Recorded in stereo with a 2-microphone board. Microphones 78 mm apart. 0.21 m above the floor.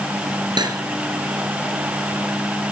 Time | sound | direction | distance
0.6 | cutlery clinking | 75° right (ahead or behind) | 1.9 m